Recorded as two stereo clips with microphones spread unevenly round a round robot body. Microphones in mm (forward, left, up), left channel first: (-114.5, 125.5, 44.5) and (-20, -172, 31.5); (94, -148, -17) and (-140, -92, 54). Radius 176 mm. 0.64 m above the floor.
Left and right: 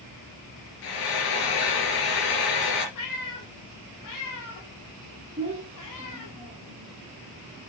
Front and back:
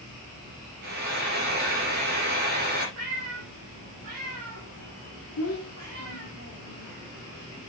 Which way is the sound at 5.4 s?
Straight ahead.